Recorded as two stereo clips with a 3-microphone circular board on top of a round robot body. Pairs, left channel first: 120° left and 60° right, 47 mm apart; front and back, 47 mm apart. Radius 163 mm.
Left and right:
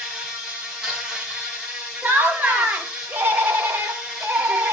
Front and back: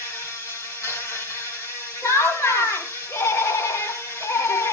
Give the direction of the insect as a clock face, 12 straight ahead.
11 o'clock.